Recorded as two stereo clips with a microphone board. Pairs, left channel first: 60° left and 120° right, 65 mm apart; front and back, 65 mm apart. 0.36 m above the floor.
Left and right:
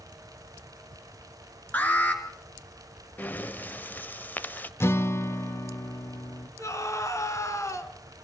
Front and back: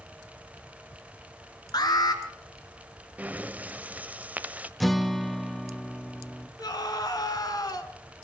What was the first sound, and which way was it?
An alarm, 5° right.